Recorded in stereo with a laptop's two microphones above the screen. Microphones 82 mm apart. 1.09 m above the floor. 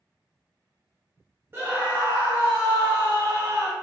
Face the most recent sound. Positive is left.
turn(degrees=-25)  # may be behind; listen again after turning